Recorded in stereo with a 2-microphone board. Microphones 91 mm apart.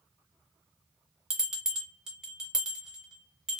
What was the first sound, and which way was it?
A bell, 5° right (ahead or behind).